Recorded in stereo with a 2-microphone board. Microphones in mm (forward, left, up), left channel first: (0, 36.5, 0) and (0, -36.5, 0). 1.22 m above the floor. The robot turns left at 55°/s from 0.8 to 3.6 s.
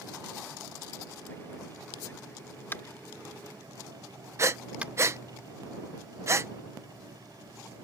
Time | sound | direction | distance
2.7 | tapping | 30° left (ahead or behind) | ?
4.4 | breathing | 40° right (ahead or behind) | ?